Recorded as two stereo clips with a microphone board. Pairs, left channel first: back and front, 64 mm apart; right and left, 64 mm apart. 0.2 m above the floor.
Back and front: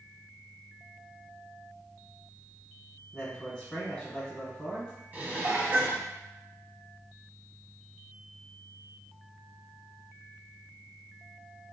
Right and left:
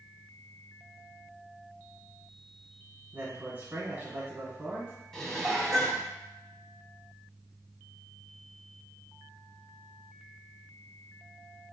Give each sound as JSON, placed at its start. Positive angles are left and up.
{"t": 3.1, "sound": "a man speaking", "azimuth_deg": 120, "distance_m": 1.2}
{"t": 5.1, "sound": "dishes clattering", "azimuth_deg": -10, "distance_m": 0.7}